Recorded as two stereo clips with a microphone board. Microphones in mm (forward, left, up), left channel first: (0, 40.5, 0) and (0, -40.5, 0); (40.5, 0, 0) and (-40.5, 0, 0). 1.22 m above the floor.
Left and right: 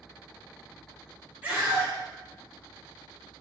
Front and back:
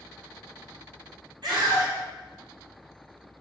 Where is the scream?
160° right, 3.5 m.